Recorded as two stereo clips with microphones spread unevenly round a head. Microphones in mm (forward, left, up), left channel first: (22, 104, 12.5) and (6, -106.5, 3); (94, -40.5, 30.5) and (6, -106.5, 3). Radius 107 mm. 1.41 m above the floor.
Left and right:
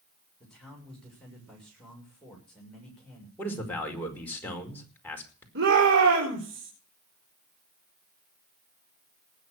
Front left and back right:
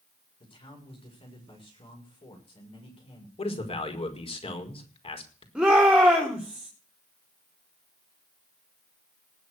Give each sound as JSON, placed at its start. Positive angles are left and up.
{"t": 0.4, "sound": "a man speaking", "azimuth_deg": 0, "distance_m": 6.5}
{"t": 3.4, "sound": "a man speaking", "azimuth_deg": 5, "distance_m": 5.0}
{"t": 5.5, "sound": "a shout", "azimuth_deg": -60, "distance_m": 4.5}